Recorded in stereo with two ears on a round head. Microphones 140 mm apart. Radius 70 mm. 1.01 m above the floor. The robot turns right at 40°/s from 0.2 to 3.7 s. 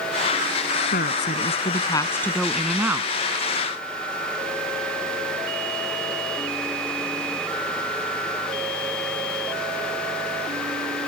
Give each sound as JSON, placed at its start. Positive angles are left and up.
{"t": 0.9, "sound": "a woman speaking", "azimuth_deg": 115}